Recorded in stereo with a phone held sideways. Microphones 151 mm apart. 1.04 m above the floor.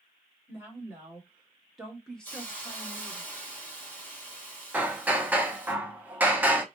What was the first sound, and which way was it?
A woman speaking, 15° right (ahead or behind).